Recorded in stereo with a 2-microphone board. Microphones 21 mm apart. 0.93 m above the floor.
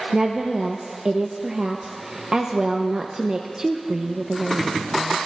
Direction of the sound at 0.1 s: 30° right (ahead or behind).